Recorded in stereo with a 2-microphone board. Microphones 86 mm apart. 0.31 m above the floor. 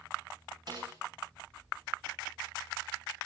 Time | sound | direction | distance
0.7 | a snare drum | 45° right (ahead or behind) | 8 m